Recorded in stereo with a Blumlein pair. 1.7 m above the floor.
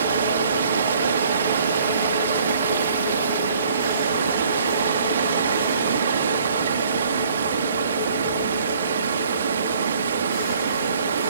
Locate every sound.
0.0 s running water: 65° right